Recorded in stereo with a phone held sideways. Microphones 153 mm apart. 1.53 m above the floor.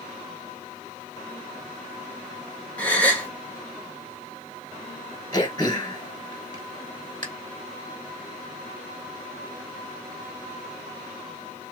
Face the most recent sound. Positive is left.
turn(degrees=30)  # may be behind; listen again after turning